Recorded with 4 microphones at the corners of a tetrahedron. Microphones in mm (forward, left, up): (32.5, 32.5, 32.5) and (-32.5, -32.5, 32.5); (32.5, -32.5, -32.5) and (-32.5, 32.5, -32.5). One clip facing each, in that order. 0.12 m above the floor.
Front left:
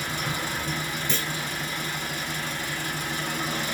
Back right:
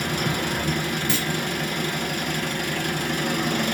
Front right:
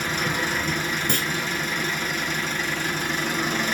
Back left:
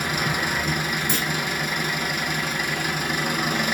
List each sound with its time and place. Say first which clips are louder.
0.0 s an engine running: back right 5 dB, back left 1 dB; 150° right, 1.1 m
1.1 s a clunk: back right 4 dB, even; 55° right, 1.4 m